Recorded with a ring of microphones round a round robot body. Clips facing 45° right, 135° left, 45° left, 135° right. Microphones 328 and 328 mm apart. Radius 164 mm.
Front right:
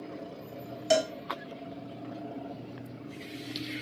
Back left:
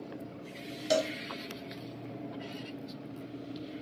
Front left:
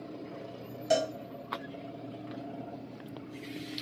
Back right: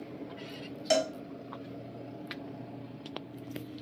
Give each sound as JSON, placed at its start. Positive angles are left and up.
{"t": 0.9, "sound": "a cowbell", "azimuth_deg": -110, "distance_m": 0.5}